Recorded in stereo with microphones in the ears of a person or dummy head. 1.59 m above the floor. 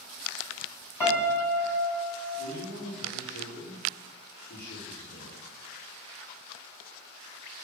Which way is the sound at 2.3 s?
65° left (ahead or behind).